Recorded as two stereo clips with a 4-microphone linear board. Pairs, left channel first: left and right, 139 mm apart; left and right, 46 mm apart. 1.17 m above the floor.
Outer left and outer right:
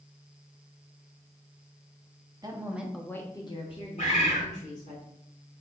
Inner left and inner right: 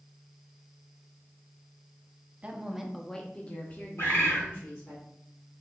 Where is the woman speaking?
30° right (ahead or behind), 0.8 m; by 5.0 s 65° left (ahead or behind), 1.7 m.